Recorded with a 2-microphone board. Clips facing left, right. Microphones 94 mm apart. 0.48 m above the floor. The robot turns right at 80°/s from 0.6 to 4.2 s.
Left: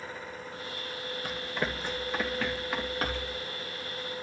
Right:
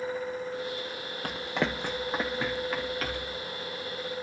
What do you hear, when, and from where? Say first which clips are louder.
1.2 s running footsteps: right 4 dB; 55° right (ahead or behind), 0.9 m; by 3.4 s 60° left (ahead or behind), 4 m